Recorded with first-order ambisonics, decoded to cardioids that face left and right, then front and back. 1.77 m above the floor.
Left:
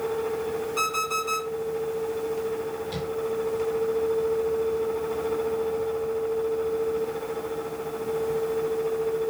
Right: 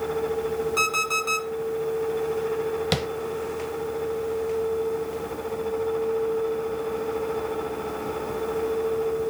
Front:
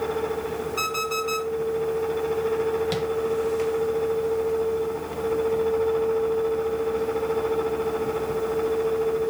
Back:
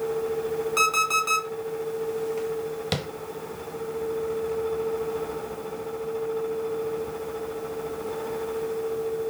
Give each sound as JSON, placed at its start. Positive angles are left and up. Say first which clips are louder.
{"t": 0.8, "sound": "an alarm clock", "louder": "right 3 dB, back 5 dB", "azimuth_deg": -155, "distance_m": 3.0}
{"t": 2.9, "sound": "tapping", "louder": "right 6 dB, front 3 dB", "azimuth_deg": -110, "distance_m": 0.7}